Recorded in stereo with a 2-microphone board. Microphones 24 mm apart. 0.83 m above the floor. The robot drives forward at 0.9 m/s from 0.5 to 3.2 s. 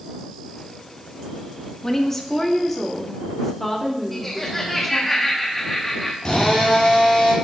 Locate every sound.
1.8 s a woman speaking: 20° left (ahead or behind), 1.3 m; by 5.1 s 10° left (ahead or behind), 2.5 m
4.1 s laughter: 10° left (ahead or behind), 1.1 m
6.2 s a drill: 35° left (ahead or behind), 4 m